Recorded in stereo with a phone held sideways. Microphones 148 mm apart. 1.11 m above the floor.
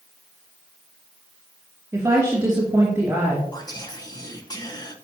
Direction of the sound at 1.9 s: 20° right (ahead or behind).